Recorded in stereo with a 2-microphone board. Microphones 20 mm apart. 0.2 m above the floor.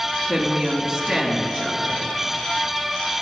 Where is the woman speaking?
45° right (ahead or behind), 2.5 m.